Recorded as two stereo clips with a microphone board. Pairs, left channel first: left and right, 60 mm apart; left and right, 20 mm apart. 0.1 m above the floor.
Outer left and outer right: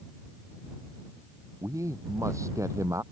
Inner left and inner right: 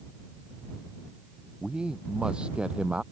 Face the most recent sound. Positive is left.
turn(degrees=-55)  # may be behind; listen again after turning